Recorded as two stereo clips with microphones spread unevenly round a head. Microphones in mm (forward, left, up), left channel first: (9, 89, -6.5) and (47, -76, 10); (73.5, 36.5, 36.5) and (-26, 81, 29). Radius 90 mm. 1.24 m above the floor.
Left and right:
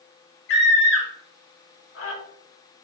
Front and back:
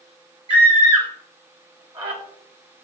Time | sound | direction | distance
0.5 | a scream | 115° left | 4.5 m